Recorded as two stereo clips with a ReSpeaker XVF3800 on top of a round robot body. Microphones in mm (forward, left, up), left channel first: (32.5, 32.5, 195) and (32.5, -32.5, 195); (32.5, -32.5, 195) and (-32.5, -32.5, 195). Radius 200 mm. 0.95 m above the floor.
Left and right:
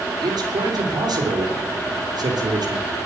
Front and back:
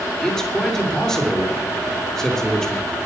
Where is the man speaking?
85° right, 3 m.